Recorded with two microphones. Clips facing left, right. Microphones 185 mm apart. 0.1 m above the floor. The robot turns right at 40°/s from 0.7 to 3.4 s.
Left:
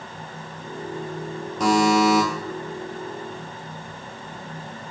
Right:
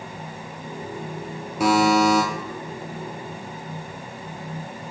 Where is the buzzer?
10° right (ahead or behind), 0.7 m; by 2.2 s 10° left (ahead or behind), 0.7 m.